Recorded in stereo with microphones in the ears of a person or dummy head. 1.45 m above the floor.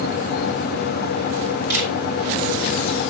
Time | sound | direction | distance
1.7 | a camera shutter | 70° right (ahead or behind) | 5.5 m